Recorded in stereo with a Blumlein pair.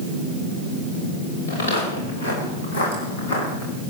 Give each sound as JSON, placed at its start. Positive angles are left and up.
{"t": 1.5, "sound": "footsteps", "azimuth_deg": 65, "distance_m": 9.5}